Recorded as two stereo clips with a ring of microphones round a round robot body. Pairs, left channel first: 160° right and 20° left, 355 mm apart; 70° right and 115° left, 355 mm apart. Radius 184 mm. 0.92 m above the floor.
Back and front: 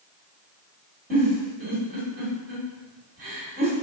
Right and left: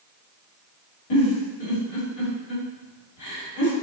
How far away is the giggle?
About 1.6 m.